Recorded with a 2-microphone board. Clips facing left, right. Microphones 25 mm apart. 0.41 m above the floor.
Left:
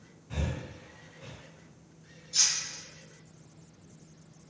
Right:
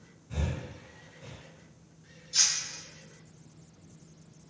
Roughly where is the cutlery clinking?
Right.